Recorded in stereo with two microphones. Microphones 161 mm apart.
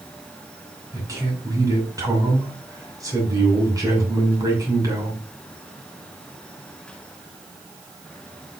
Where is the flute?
I don't hear a flute.